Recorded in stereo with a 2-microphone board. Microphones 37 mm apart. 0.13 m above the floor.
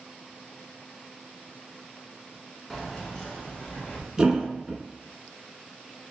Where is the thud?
15° right (ahead or behind), 0.7 m.